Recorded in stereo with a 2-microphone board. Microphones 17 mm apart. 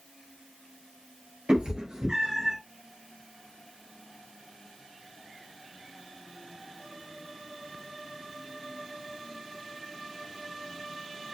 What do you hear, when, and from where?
1.5 s a cat meowing: 60° right (ahead or behind), 1.4 m; by 2.6 s 15° right (ahead or behind), 1.1 m